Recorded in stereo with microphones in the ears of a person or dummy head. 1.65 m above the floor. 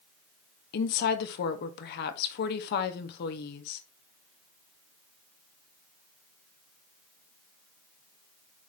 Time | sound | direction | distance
0.7 | a woman speaking | 55° left (ahead or behind) | 1.0 m